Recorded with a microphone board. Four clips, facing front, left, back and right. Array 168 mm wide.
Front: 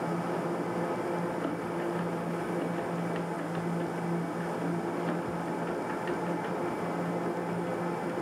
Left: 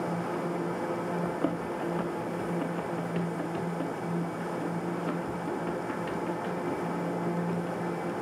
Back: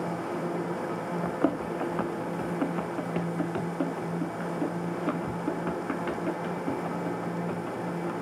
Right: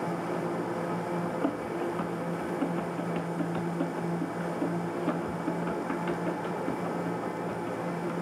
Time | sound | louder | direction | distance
1.2 | running footsteps | even, back 4 dB | 170° left | 1.2 m